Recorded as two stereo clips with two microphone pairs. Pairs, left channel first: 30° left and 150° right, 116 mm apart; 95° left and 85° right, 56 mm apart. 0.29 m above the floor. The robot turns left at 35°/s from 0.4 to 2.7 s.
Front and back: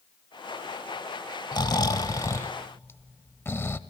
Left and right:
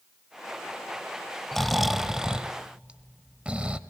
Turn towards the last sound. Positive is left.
turn(degrees=-30)